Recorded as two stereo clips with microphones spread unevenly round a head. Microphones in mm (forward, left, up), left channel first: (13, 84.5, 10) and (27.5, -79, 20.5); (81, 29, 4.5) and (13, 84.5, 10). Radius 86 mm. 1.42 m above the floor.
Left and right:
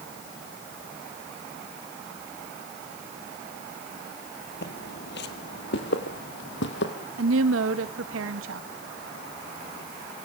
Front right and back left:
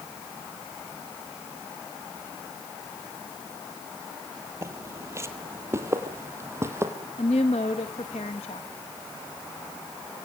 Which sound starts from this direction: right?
A woman speaking, at 7.2 s.